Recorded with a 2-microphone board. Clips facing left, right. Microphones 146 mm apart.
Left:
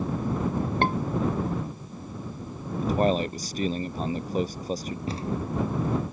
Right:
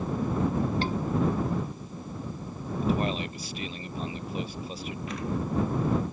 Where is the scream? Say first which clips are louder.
Left 4 dB; 60° left (ahead or behind).